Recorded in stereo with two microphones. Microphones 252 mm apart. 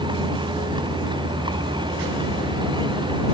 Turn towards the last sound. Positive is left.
turn(degrees=-20)  # may be behind; listen again after turning